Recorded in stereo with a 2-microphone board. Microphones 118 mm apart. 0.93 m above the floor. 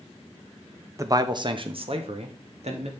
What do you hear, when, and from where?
1.0 s a man speaking: 25° right (ahead or behind), 0.6 m; by 2.9 s 65° right (ahead or behind), 1.5 m